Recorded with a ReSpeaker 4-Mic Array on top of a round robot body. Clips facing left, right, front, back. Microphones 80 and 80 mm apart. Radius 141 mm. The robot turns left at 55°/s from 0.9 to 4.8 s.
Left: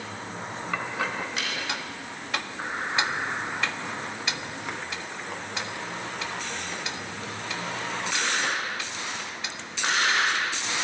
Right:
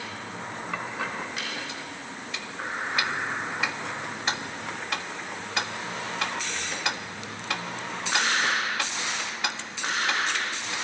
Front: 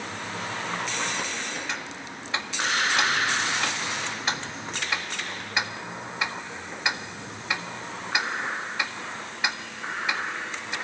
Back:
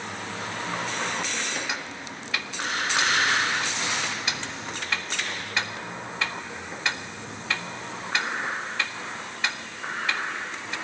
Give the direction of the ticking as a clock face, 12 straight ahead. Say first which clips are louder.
Left 3 dB, back 1 dB; 9 o'clock.